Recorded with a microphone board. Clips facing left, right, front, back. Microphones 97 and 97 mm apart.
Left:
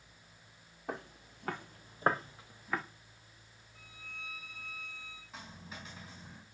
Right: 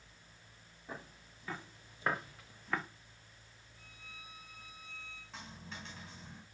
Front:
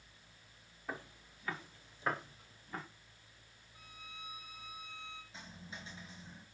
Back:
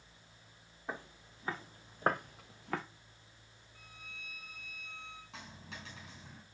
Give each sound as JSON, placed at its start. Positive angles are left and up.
{"t": 0.9, "sound": "footsteps", "azimuth_deg": 110, "distance_m": 3.0}
{"t": 3.8, "sound": "a violin", "azimuth_deg": 75, "distance_m": 1.4}
{"t": 5.3, "sound": "a dropped coin", "azimuth_deg": 175, "distance_m": 5.0}